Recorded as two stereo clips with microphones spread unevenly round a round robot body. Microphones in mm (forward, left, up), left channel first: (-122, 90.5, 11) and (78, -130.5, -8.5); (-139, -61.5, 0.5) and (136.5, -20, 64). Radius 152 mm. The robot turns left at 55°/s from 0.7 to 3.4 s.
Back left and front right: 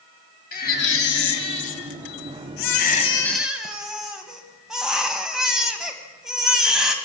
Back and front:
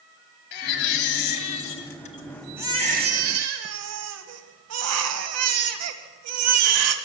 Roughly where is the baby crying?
Behind.